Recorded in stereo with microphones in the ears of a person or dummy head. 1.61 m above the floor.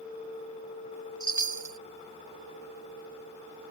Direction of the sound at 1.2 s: 10° right (ahead or behind).